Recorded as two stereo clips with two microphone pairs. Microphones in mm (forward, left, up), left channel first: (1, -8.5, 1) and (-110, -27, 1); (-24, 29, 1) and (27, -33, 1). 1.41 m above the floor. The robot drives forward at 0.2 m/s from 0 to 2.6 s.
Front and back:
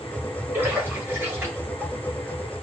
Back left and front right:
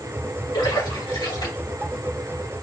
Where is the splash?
120° left, 3 m; by 1.9 s 125° left, 3 m.